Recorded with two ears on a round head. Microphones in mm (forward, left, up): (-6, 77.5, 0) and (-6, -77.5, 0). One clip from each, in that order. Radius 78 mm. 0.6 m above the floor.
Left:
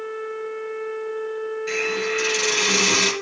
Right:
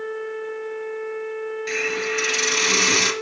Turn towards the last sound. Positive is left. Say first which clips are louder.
# even
turn(degrees=-30)  # may be behind; listen again after turning